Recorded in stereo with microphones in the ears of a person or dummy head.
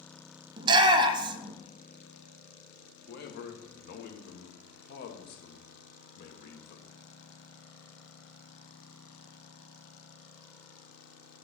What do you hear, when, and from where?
0.6 s a shout: 30° right (ahead or behind), 0.6 m
3.1 s a man speaking: 55° left (ahead or behind), 1.1 m